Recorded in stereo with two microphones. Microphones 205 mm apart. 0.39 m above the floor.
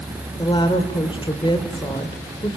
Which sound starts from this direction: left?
A woman speaking, at 0.4 s.